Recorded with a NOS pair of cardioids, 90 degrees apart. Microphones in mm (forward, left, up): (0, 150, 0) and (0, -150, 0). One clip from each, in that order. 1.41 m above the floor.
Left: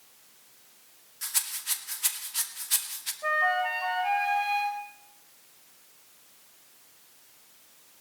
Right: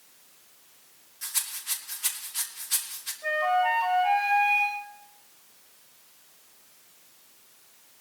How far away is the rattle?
About 2 m.